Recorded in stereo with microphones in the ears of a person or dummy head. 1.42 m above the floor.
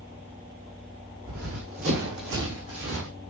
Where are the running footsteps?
70° right (ahead or behind), 4.5 m; by 3.1 s 65° right (ahead or behind), 5 m.